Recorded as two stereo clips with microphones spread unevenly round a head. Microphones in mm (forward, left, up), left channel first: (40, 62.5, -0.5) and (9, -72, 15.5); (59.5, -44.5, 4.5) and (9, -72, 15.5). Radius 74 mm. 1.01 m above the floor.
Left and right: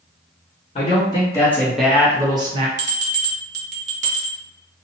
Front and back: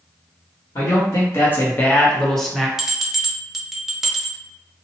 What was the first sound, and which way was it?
A man speaking, 40° left.